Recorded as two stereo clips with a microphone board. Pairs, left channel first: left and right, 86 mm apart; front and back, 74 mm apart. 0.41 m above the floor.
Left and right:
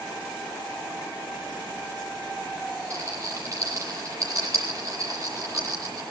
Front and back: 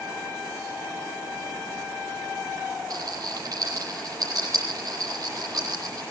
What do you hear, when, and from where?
2.9 s a rattle: 145° right, 10 m